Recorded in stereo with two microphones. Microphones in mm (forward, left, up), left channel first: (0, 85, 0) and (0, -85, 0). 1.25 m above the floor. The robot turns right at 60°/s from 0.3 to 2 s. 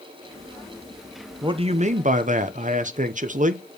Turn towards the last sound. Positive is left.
turn(degrees=-110)